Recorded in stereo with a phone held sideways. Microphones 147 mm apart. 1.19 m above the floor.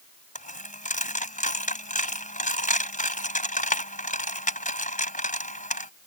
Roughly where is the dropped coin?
Left.